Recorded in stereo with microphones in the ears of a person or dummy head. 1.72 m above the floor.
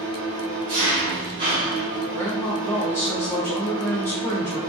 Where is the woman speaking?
5° left (ahead or behind), 0.8 m.